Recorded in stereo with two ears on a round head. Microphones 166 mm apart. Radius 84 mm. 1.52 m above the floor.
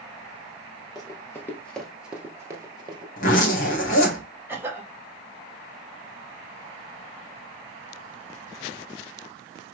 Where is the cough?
10° right (ahead or behind), 1.9 m.